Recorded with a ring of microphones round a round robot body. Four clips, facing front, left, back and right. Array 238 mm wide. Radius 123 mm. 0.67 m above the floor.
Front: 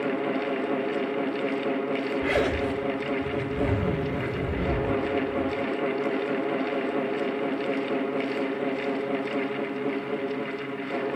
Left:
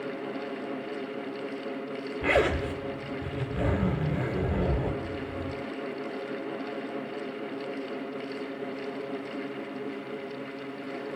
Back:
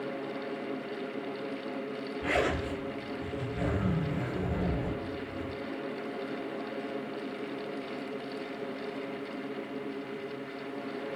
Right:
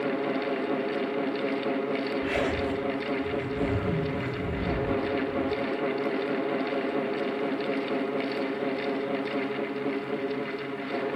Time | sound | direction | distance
2.2 | a zipper | 60° left | 3.5 m